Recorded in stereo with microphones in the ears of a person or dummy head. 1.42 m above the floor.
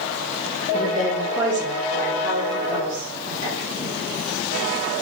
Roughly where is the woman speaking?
Centre.